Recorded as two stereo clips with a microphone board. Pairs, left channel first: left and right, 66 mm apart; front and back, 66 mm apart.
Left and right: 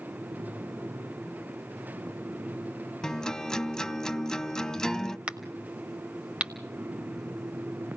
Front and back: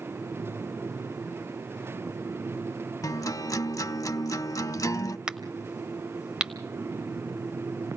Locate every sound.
3.0 s a guitar: 10° left, 0.5 m
5.3 s a crack: 125° right, 1.3 m